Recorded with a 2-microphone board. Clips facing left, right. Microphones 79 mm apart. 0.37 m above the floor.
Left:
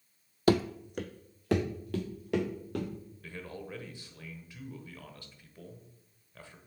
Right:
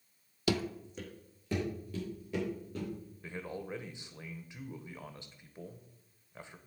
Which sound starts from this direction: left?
Running footsteps, at 0.5 s.